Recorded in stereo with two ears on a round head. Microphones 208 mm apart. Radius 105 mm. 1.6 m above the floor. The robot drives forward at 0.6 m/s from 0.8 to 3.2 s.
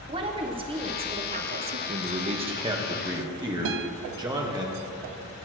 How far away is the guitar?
About 0.5 m.